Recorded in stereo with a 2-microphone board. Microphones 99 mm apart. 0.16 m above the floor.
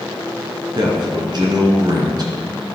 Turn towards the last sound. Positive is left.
turn(degrees=-50)  # may be behind; listen again after turning